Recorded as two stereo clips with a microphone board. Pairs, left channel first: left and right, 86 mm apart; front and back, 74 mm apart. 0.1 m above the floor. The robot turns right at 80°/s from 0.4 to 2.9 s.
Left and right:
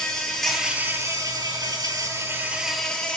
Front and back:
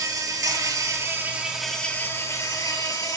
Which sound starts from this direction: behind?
An insect, at 0.0 s.